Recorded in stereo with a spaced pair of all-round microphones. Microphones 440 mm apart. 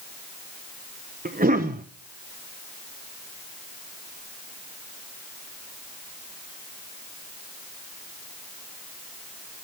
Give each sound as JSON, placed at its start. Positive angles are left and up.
{"t": 1.2, "sound": "a cough", "side_deg": -20, "distance_m": 0.9}